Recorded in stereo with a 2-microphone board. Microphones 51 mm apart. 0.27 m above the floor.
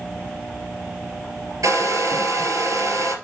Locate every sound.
1.6 s a hair dryer: 75° right (ahead or behind), 3 m